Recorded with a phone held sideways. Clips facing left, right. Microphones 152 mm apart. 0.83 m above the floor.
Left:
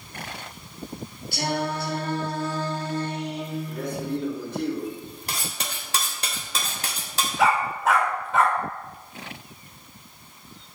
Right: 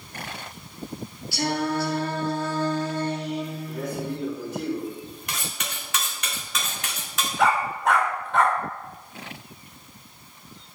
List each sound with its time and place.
1.3 s singing: 55° left (ahead or behind), 3.5 m
3.7 s a man speaking: 10° right (ahead or behind), 3.5 m
5.3 s cutlery clinking: 35° left (ahead or behind), 0.8 m
7.4 s a dog barking: centre (ahead or behind), 1.1 m